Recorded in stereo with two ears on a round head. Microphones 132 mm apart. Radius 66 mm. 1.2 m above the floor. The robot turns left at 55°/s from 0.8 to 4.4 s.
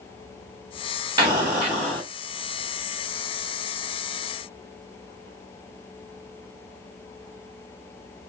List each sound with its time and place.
1.2 s an explosion: 150° right, 1.7 m; by 2.0 s 165° left, 1.7 m